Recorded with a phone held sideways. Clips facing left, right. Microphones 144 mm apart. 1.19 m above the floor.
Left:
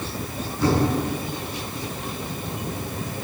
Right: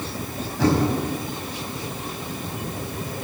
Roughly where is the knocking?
Right.